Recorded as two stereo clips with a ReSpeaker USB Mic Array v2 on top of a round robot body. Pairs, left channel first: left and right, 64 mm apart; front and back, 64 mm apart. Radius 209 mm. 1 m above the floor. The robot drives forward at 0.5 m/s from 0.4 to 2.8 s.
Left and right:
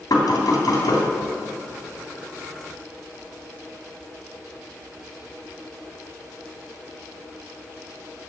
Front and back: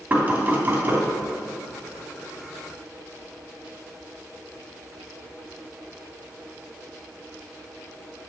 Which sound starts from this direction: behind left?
Knocking, at 0.1 s.